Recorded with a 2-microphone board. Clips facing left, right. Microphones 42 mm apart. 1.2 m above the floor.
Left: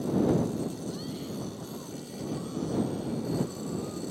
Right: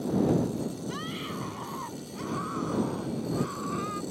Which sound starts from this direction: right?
A scream, at 0.9 s.